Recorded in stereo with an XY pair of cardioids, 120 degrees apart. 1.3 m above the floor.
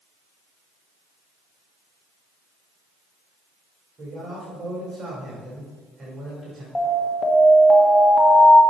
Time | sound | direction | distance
4.0 | a man speaking | 40° right | 3.5 m
6.8 | an alarm | 20° left | 1.3 m